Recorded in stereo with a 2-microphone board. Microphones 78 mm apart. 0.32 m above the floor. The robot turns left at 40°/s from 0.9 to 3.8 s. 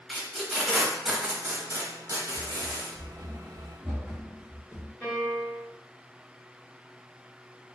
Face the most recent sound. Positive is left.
turn(degrees=15)  # may be behind; listen again after turning